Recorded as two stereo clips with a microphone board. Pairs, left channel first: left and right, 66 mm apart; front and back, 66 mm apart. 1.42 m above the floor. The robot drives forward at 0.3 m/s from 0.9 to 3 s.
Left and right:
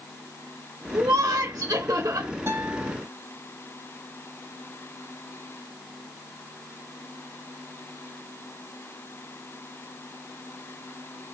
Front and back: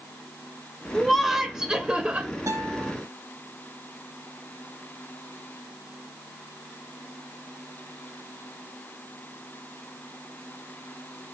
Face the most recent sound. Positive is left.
turn(degrees=-140)